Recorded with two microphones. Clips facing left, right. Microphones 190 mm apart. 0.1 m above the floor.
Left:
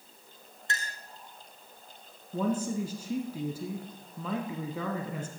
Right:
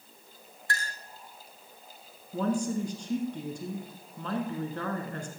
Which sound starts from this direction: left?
A clink, at 0.7 s.